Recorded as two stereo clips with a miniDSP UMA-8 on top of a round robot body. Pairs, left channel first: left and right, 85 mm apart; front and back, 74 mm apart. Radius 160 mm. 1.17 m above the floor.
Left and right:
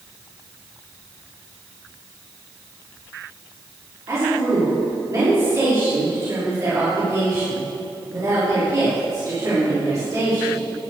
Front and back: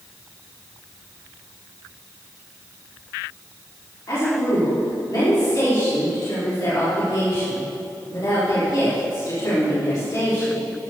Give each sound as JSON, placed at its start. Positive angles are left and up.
{"t": 4.1, "sound": "a woman speaking", "azimuth_deg": -40, "distance_m": 3.5}